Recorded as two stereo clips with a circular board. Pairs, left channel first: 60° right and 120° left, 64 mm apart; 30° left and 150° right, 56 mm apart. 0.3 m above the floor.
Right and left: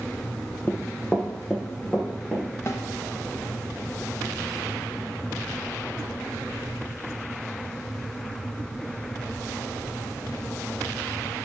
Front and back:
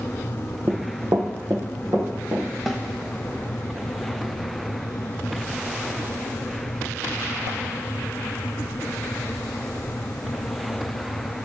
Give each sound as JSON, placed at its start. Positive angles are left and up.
{"t": 0.7, "sound": "running footsteps", "azimuth_deg": -115, "distance_m": 0.5}
{"t": 2.7, "sound": "a snare drum", "azimuth_deg": -60, "distance_m": 0.5}